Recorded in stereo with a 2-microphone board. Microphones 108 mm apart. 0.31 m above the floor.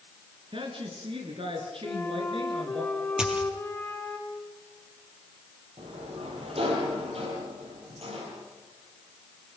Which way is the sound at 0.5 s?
60° right (ahead or behind).